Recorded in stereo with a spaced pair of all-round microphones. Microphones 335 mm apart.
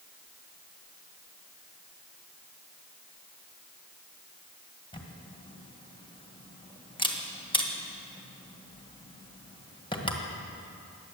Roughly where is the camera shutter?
Centre.